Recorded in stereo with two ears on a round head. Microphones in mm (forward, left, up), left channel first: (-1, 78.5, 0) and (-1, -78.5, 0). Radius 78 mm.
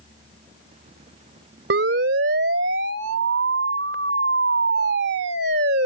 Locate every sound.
1.7 s a siren: 70° right (ahead or behind); by 5.9 s 60° right (ahead or behind)